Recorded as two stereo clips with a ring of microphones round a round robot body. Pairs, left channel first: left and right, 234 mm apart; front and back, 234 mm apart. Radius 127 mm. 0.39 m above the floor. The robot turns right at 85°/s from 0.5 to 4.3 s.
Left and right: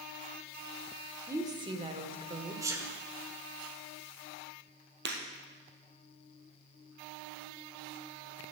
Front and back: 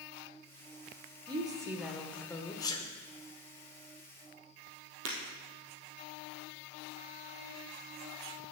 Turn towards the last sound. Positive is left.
turn(degrees=-135)